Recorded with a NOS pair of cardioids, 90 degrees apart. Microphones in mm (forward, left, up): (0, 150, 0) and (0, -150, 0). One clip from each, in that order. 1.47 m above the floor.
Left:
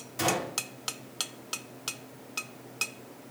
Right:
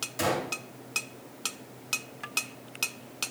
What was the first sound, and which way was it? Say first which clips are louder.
A gunshot: left 1 dB; 10° right.